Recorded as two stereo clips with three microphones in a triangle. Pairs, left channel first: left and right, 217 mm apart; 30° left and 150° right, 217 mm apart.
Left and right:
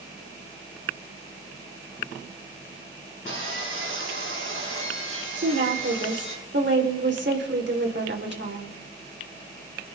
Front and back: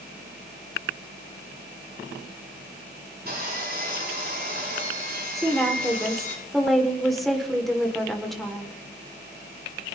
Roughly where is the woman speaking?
Ahead right.